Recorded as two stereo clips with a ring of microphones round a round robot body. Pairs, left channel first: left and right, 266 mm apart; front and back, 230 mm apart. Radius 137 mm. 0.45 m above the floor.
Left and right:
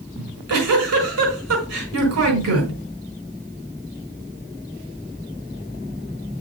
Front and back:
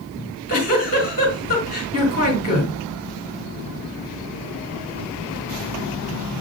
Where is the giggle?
60° right, 4.5 m.